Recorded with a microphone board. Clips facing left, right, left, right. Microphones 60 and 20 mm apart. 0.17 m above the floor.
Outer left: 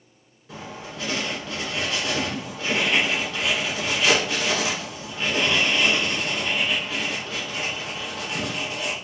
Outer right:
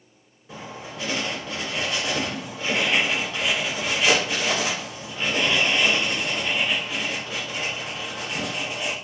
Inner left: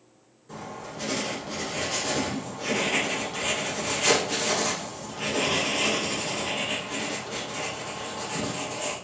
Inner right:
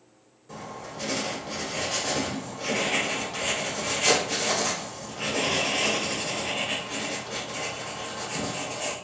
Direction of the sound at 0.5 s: Centre (ahead or behind).